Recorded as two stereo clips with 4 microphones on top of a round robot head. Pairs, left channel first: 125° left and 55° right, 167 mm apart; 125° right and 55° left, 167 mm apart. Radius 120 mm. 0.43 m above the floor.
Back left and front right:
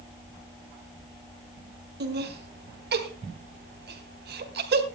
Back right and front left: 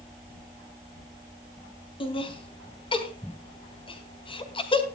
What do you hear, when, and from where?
2.0 s laughter: 70° right, 3 m